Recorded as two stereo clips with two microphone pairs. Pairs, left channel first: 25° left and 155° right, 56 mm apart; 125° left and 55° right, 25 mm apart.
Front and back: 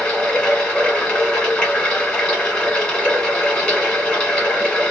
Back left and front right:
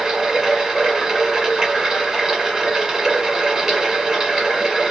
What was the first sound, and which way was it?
Running water, 30° right.